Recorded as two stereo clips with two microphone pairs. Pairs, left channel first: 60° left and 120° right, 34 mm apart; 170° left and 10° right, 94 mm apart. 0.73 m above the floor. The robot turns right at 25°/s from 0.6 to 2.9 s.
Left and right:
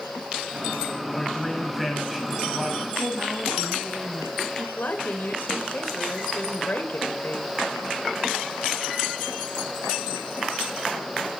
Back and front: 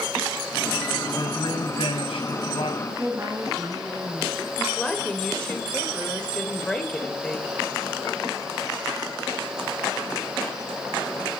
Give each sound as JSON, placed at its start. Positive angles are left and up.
{"t": 1.1, "sound": "a man speaking", "azimuth_deg": 135, "distance_m": 5.5}
{"t": 2.8, "sound": "a woman speaking", "azimuth_deg": -75, "distance_m": 7.0}
{"t": 4.8, "sound": "a woman speaking", "azimuth_deg": 90, "distance_m": 3.0}